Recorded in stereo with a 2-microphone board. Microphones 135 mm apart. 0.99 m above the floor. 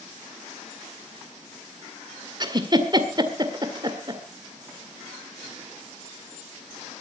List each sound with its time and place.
2.4 s a giggle: 30° right (ahead or behind), 1.8 m